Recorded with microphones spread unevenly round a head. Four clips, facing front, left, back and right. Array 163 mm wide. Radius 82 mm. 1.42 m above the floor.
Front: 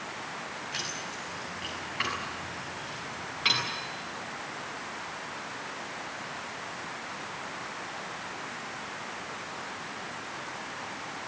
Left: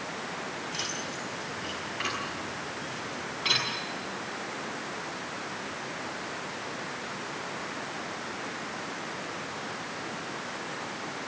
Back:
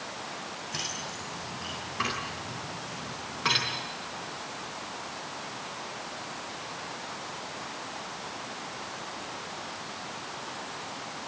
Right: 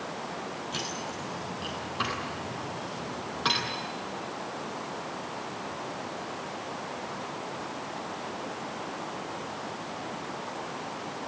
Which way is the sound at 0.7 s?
130° right.